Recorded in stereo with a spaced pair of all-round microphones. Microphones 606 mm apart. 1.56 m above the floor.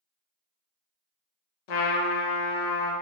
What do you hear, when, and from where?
1.7 s a trumpet: 80° left, 0.6 m